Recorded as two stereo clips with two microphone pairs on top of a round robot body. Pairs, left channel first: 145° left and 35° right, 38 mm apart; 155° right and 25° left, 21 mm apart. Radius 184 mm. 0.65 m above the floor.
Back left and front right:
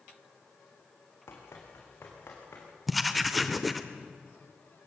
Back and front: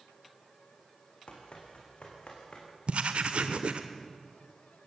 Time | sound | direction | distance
1.3 | running footsteps | 165° left | 3.5 m
2.9 | writing | 50° left | 0.9 m